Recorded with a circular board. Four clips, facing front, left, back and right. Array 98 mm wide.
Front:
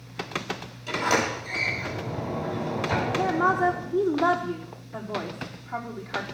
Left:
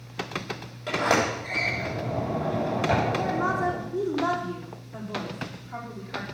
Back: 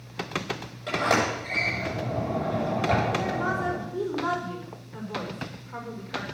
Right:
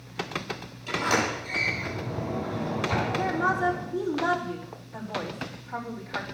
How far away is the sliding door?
About 8 m.